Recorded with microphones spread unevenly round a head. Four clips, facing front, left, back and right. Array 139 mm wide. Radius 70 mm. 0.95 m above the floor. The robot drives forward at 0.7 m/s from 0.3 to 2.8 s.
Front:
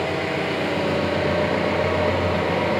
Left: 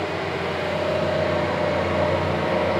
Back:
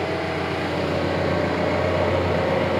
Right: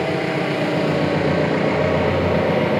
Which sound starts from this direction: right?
An engine running, at 0.0 s.